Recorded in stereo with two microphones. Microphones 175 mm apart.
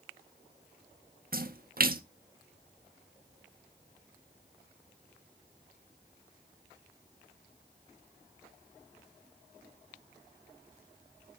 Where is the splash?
55° right (ahead or behind), 0.7 m.